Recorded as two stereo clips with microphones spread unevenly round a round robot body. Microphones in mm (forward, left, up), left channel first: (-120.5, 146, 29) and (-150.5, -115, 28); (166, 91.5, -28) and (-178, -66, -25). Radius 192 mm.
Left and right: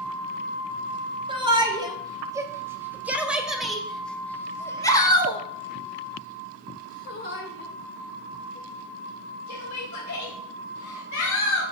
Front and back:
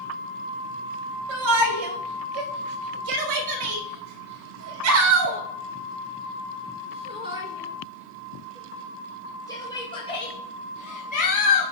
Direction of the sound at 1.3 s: 170° right.